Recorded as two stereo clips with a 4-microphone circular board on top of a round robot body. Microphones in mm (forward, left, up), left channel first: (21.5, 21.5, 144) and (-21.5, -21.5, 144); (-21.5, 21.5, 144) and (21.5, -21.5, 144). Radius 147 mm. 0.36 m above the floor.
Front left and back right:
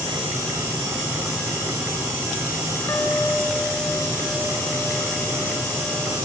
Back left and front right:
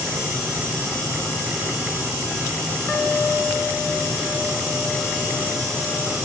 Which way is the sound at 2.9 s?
80° left.